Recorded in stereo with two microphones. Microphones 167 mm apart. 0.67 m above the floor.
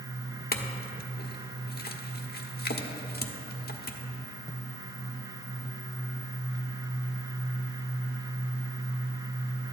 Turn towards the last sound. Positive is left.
turn(degrees=70)  # may be behind; listen again after turning